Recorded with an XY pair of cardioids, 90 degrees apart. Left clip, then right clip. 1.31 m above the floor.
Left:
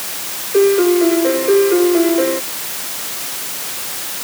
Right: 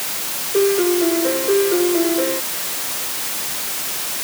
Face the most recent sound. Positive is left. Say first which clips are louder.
# left 5 dB
turn(degrees=40)